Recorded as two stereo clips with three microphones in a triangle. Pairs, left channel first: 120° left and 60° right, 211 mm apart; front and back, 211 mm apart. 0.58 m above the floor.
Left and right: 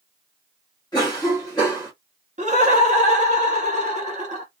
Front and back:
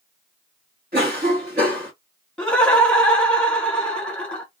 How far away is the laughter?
About 1.3 m.